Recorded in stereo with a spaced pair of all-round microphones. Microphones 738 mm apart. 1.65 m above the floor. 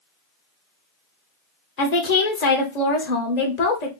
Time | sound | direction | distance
1.8 | a woman speaking | 65° left (ahead or behind) | 0.9 m